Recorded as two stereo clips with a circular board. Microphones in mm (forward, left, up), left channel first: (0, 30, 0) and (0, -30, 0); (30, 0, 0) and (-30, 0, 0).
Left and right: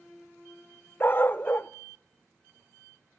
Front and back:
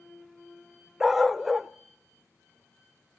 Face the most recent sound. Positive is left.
turn(degrees=95)